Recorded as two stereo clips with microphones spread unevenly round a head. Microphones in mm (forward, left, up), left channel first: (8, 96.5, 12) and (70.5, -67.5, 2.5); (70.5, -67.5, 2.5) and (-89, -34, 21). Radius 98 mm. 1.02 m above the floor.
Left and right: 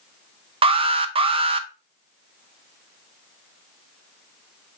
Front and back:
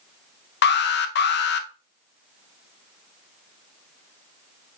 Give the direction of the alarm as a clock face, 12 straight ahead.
12 o'clock.